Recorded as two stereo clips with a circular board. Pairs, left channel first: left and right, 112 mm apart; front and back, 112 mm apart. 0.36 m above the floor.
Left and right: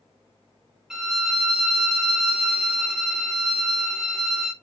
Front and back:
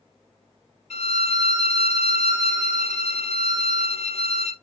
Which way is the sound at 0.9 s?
5° right.